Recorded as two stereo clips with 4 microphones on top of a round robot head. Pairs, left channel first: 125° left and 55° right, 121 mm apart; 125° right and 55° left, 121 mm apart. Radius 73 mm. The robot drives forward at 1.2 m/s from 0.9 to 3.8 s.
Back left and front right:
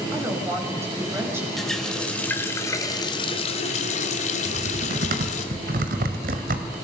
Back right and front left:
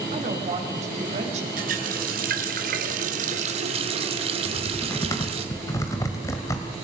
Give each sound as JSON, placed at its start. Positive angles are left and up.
{"t": 0.1, "sound": "a woman speaking", "azimuth_deg": 15, "distance_m": 5.5}
{"t": 1.6, "sound": "a running tap", "azimuth_deg": 40, "distance_m": 3.0}
{"t": 4.5, "sound": "typing on a keyboard", "azimuth_deg": -60, "distance_m": 2.5}